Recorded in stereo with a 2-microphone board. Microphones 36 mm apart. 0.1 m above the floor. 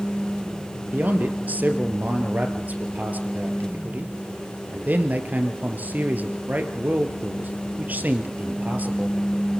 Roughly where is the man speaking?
Right.